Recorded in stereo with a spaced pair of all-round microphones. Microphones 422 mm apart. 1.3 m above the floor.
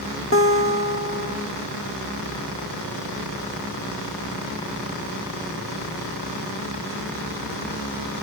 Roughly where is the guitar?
Left.